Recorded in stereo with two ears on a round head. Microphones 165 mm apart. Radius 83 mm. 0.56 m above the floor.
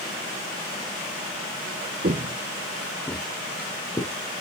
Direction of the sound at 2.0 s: 40° right (ahead or behind).